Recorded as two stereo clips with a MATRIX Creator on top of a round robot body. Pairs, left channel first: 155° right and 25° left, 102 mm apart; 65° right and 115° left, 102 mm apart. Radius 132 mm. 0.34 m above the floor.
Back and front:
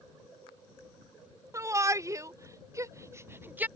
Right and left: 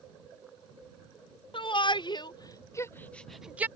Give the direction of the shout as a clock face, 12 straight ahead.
1 o'clock.